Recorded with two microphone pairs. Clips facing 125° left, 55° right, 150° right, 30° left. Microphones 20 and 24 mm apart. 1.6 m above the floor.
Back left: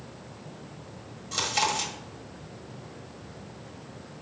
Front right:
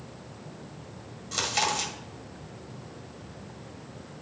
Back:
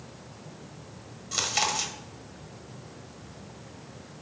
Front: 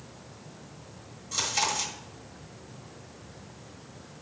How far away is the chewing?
About 1.5 m.